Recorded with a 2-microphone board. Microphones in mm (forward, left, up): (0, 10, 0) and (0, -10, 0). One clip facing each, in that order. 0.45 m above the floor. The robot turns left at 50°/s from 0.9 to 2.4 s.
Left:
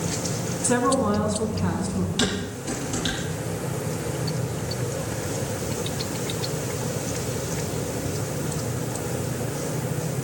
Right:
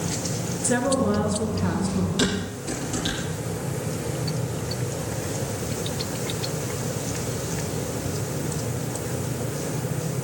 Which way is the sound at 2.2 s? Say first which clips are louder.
Right 1 dB; 20° left (ahead or behind).